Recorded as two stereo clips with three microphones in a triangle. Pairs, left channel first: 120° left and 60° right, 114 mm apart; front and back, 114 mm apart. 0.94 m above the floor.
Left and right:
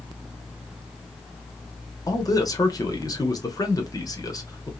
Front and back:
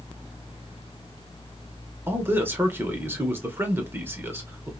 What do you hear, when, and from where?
2.1 s a man speaking: 125° left, 0.7 m